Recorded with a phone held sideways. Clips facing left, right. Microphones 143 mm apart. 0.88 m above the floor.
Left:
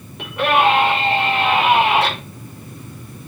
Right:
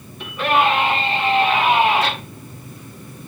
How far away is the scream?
About 7 m.